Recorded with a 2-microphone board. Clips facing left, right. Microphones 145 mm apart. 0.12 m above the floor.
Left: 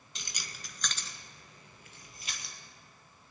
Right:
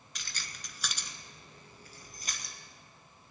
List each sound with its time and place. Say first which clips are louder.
0.1 s keys jangling: left 1 dB; 25° left (ahead or behind), 0.9 m; by 2.5 s 45° right (ahead or behind), 2.0 m